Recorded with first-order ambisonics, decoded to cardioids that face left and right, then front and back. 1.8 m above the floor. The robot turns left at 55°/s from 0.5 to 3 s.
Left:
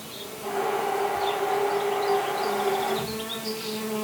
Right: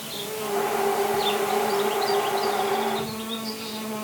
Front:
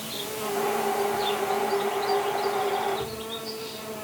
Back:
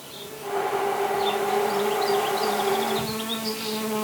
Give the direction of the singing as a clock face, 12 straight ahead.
No singing in this recording.